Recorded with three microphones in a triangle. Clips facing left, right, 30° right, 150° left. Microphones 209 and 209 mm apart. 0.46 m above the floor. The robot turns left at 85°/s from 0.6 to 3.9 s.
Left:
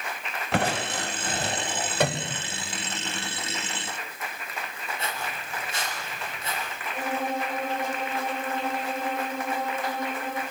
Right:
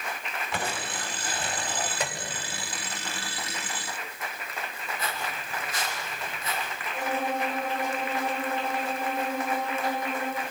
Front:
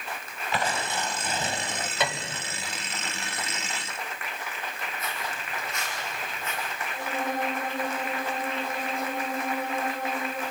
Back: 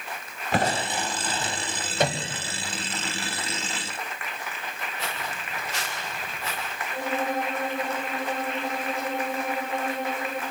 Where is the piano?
110° left, 0.9 m; by 2.4 s 75° left, 0.9 m.